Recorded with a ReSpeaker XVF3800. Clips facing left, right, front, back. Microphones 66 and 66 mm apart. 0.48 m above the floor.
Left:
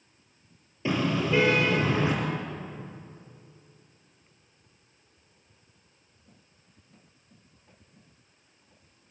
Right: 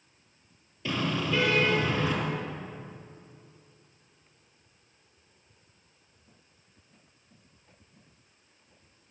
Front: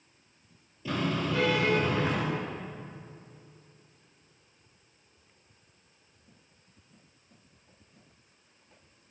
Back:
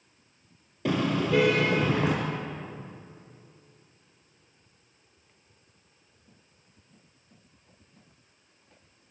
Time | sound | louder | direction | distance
0.8 | a car horn | left 3 dB, back 4 dB | 155° left | 5 m